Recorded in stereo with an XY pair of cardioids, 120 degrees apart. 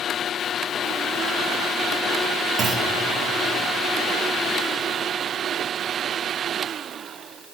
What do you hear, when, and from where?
2.6 s a clunk: 50° right, 3 m